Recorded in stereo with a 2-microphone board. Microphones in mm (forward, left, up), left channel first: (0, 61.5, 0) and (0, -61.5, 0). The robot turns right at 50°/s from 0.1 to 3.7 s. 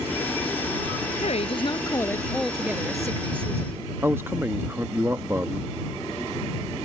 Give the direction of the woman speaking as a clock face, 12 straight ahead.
8 o'clock.